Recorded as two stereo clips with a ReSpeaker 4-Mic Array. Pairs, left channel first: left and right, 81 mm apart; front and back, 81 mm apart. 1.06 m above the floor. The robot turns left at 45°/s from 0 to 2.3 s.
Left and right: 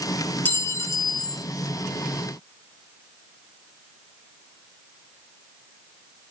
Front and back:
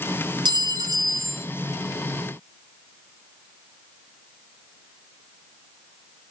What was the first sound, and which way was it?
A clink, 160° left.